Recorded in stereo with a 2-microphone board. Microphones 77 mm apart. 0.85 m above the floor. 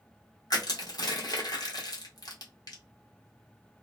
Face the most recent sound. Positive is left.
turn(degrees=60)  # may be behind; listen again after turning